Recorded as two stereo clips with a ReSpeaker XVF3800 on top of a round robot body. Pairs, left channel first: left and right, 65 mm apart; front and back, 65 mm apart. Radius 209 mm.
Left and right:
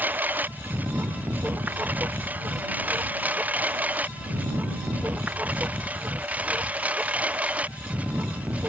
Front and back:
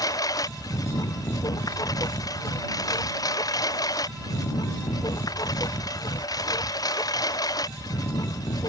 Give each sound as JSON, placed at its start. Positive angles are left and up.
{"t": 0.0, "sound": "a lawn mower", "azimuth_deg": -25}